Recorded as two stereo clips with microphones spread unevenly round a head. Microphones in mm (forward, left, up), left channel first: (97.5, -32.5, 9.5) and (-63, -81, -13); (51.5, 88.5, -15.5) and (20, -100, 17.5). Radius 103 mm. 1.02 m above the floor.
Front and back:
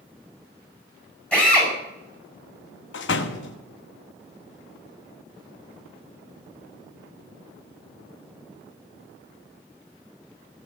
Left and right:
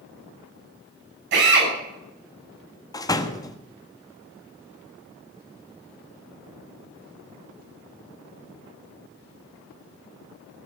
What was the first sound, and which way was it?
A drill, 70° right.